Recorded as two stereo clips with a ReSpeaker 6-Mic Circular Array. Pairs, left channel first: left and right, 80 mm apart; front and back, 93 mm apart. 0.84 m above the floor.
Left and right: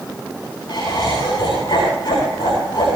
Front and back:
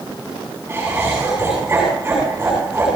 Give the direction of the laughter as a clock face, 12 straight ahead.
8 o'clock.